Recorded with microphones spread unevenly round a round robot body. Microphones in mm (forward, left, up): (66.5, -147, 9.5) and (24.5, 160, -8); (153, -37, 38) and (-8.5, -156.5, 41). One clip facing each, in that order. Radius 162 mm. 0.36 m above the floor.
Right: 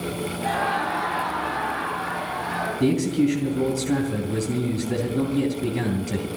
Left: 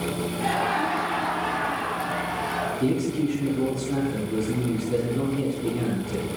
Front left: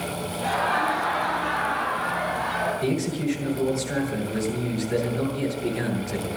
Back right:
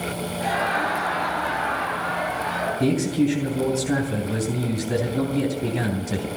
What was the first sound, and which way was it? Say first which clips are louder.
Laughter: left 1 dB, even; 160° left.